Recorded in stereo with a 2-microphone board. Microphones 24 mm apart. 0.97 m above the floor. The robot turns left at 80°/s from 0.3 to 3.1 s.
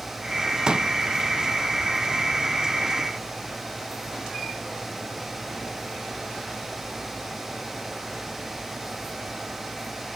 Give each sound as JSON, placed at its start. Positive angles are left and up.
{"t": 0.7, "sound": "a pop", "side_deg": -35, "distance_m": 0.7}